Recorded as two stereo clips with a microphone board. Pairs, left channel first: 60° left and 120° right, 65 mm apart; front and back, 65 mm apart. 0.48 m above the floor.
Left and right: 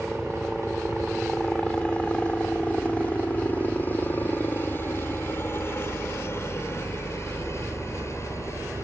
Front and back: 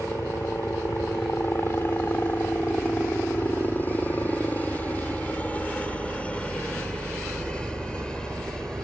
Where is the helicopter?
25° right; by 8.8 s 75° left.